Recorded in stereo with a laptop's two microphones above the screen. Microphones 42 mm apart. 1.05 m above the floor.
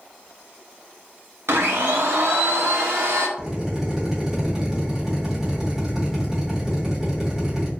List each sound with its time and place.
1.5 s a blender: 80° right, 0.6 m
3.4 s a drill: 10° right (ahead or behind), 1.0 m